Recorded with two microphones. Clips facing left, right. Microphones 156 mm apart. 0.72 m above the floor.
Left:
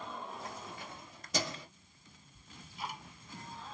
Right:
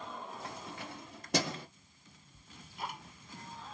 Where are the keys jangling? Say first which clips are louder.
Right 1 dB; 65° right (ahead or behind), 1.3 m; by 1.7 s 60° right (ahead or behind), 1.3 m.